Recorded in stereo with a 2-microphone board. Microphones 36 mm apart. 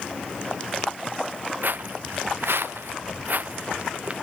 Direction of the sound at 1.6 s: 60° right (ahead or behind).